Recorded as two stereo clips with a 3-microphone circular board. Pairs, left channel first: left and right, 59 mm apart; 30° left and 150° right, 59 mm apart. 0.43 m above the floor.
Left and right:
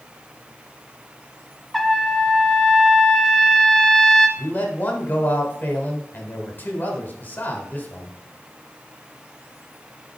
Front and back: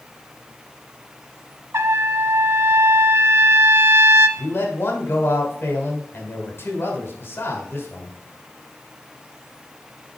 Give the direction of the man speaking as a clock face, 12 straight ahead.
10 o'clock.